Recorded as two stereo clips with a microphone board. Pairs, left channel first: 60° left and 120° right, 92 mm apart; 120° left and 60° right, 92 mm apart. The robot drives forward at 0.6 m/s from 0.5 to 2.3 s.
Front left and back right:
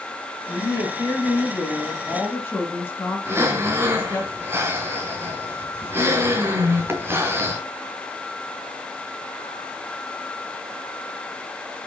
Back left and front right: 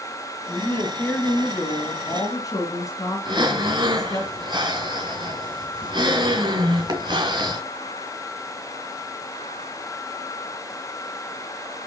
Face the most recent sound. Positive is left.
turn(degrees=-60)